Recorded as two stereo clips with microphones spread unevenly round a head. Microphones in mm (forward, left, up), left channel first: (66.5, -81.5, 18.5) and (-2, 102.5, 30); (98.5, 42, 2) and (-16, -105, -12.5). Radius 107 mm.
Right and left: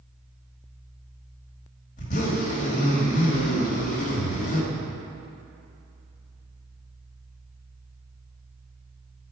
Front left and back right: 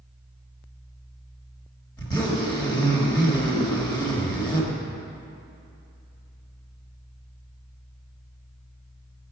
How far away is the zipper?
About 1.5 m.